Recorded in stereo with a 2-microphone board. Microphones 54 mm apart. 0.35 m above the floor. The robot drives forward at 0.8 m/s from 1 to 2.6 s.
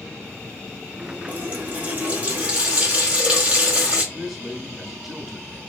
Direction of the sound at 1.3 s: 35° right (ahead or behind).